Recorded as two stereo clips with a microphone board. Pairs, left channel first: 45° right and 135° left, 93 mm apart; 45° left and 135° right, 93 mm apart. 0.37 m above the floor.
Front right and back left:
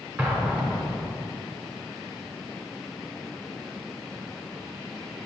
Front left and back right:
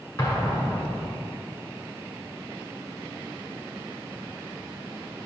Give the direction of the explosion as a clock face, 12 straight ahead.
9 o'clock.